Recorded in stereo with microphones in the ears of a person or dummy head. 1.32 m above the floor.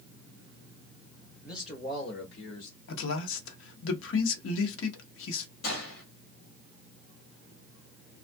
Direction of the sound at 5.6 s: 80° left.